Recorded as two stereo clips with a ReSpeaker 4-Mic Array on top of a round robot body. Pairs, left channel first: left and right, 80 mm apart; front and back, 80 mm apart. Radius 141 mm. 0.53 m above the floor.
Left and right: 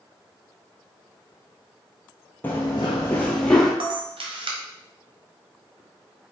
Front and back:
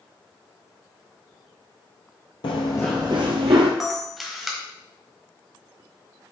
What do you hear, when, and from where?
2.4 s running footsteps: 20° left, 0.8 m; by 3.7 s 170° left, 1.2 m
3.8 s a camera shutter: 90° right, 1.4 m